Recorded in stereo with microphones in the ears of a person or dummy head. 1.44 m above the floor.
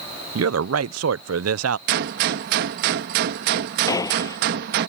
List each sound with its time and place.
0.3 s a man speaking: 75° right (ahead or behind)
1.9 s a gunshot: 60° right (ahead or behind)
3.9 s a gunshot: 20° left (ahead or behind)